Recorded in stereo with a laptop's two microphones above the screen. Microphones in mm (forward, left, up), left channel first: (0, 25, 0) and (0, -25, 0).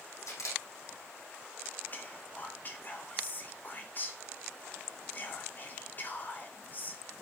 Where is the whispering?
35° left (ahead or behind), 2 m.